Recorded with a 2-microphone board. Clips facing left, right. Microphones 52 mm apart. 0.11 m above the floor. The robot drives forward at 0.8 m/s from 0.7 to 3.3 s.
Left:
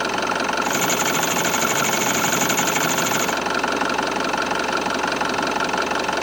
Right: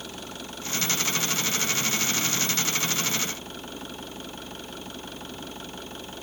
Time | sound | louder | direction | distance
0.0 | an engine running | left 18 dB | 75° left (ahead or behind) | ?